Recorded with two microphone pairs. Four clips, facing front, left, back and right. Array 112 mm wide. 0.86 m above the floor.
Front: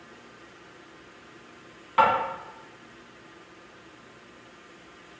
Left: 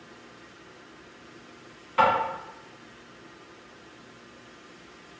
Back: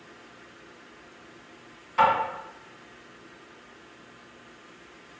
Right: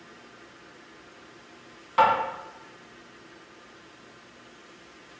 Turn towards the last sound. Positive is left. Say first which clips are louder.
# right 1 dB, even
turn(degrees=-40)